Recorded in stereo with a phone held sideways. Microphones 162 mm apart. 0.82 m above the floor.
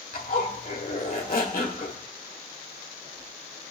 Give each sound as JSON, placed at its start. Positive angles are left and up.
{"t": 0.1, "sound": "a zipper", "side_deg": 60, "distance_m": 1.6}